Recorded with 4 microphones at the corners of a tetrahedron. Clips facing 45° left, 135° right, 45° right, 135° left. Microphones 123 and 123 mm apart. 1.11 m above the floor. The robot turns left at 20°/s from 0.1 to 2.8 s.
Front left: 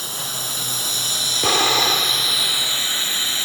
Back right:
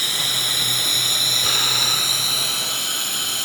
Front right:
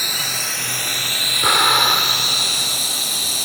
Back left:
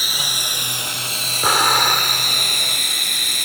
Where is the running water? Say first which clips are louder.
Back right 1 dB, front right 1 dB; 140° right; by 3.5 s 165° left.